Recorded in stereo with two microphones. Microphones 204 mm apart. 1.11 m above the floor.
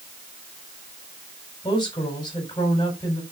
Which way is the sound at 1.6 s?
20° left (ahead or behind).